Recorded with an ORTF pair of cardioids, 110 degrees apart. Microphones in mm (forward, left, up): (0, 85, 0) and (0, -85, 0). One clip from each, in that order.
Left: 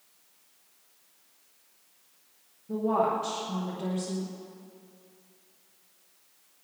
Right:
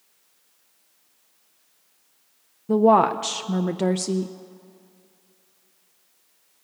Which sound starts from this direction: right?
A woman speaking, at 2.7 s.